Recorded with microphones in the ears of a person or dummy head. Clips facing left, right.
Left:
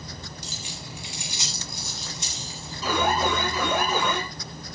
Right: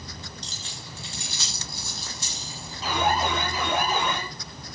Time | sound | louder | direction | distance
0.4 | keys jangling | left 3 dB | 5° left (ahead or behind) | 2 m
2.8 | an alarm | left 1 dB | 75° left (ahead or behind) | 3 m